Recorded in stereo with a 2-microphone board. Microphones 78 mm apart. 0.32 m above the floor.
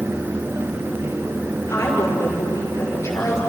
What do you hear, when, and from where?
1.7 s a woman speaking: 35° left (ahead or behind), 6 m